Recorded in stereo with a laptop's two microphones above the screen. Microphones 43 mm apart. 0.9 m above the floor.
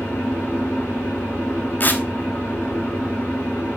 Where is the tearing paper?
50° left (ahead or behind), 1.2 m.